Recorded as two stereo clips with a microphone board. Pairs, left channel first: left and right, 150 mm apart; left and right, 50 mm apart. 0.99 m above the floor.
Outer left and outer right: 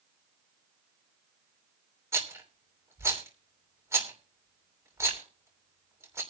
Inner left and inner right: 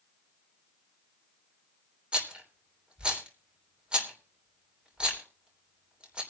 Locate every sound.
2.1 s a rattle: 20° right (ahead or behind), 3 m